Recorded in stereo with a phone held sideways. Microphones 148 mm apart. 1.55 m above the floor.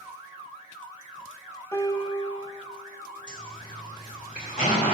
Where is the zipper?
55° left (ahead or behind), 2.5 m.